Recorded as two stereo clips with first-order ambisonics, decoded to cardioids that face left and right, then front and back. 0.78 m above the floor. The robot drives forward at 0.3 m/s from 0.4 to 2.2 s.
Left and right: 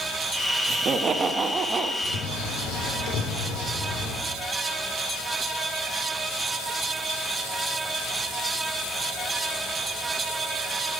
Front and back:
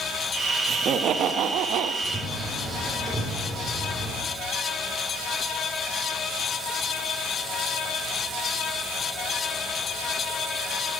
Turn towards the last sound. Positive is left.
turn(degrees=95)